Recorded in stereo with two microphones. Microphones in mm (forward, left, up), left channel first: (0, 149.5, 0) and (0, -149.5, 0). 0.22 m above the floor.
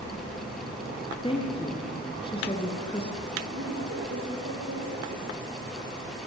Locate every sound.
1.2 s a woman speaking: 20° left (ahead or behind), 4 m
3.5 s a woman speaking: 55° right (ahead or behind), 8.5 m